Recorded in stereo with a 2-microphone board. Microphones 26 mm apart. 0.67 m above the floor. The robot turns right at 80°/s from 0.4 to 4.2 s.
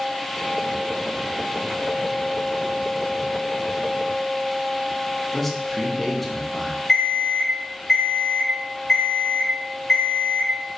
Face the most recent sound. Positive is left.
turn(degrees=15)  # may be behind; listen again after turning